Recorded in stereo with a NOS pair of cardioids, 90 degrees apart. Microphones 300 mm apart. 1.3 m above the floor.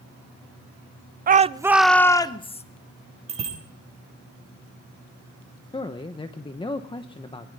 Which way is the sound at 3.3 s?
20° right.